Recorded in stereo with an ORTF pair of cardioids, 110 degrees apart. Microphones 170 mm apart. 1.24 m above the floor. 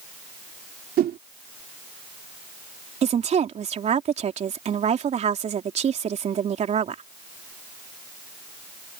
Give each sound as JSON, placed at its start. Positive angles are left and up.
{"t": 1.0, "sound": "a whoosh", "azimuth_deg": -60}
{"t": 3.0, "sound": "a woman speaking", "azimuth_deg": -40}